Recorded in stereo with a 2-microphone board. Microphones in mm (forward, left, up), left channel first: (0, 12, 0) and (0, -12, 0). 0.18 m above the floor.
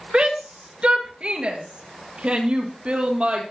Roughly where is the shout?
Right.